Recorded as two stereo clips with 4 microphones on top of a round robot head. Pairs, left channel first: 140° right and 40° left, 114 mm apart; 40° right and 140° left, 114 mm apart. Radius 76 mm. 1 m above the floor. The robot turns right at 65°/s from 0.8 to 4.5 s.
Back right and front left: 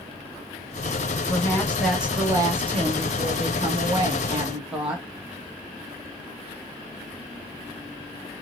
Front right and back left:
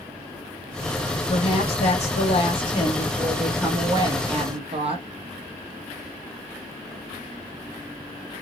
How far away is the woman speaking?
About 1.2 m.